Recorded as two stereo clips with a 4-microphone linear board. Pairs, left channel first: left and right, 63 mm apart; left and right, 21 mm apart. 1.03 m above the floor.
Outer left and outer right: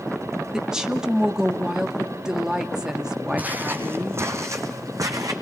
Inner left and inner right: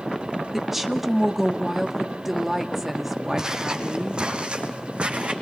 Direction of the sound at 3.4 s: 25° right (ahead or behind).